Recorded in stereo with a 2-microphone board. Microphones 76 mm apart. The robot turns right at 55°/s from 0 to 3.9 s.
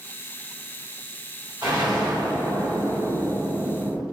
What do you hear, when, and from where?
1.6 s an explosion: 125° right, 1.2 m; by 4.0 s straight ahead, 1.2 m